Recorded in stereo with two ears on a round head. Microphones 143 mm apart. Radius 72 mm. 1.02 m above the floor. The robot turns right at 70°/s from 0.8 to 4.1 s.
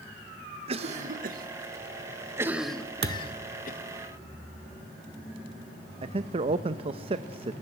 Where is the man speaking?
35° right (ahead or behind), 0.7 m.